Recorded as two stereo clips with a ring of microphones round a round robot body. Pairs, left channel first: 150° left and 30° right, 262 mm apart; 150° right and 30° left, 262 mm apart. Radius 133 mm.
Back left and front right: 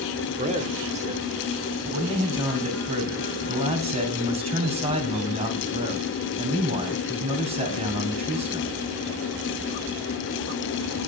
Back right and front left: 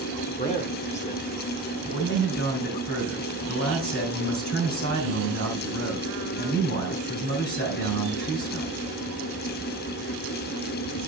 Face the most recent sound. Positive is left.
turn(degrees=-95)